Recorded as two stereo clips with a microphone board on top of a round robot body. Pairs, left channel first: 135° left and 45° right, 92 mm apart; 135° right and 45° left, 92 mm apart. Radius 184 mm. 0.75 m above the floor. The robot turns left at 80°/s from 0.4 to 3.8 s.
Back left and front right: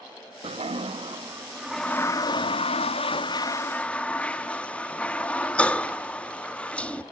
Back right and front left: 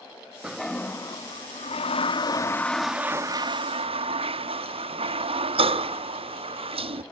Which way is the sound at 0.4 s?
35° right.